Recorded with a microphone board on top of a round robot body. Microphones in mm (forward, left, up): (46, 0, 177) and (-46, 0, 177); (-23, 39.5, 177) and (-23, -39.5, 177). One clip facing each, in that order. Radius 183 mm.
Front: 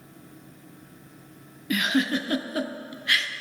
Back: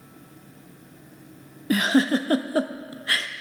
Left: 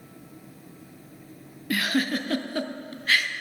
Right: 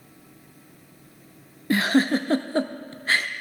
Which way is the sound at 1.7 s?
140° right.